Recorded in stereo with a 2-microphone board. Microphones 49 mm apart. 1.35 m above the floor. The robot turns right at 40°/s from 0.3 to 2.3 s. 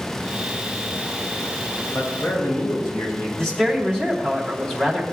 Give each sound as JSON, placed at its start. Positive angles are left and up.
{"t": 1.9, "sound": "a man speaking", "side_deg": 60, "distance_m": 5.5}
{"t": 3.4, "sound": "a woman speaking", "side_deg": 15, "distance_m": 2.5}